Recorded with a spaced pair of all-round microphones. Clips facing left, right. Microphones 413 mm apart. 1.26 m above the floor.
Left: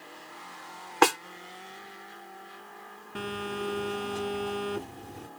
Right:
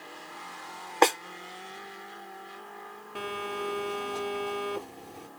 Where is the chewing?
I don't hear chewing.